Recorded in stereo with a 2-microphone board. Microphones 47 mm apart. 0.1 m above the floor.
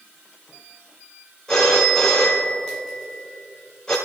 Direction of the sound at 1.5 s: 10° left (ahead or behind).